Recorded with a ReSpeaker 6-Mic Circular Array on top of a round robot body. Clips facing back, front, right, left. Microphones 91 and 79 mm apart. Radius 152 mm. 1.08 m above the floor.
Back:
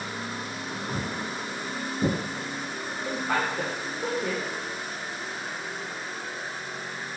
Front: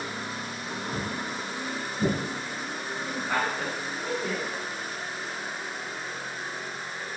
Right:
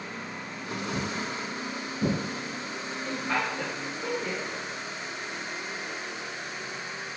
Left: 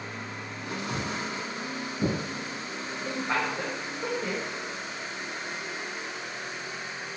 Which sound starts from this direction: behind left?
Footsteps, at 0.9 s.